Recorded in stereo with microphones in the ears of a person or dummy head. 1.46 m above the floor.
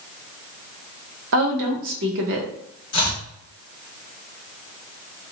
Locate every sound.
1.3 s a woman speaking: 65° right (ahead or behind), 0.9 m
2.9 s chopping: 25° left (ahead or behind), 1.2 m